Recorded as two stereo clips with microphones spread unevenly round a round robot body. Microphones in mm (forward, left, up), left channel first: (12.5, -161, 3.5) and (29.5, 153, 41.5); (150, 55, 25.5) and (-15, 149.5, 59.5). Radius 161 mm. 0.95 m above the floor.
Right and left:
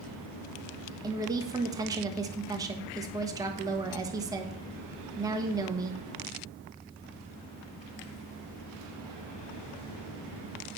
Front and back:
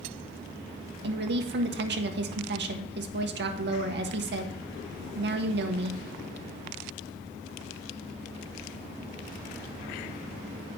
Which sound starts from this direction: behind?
A woman speaking, at 1.0 s.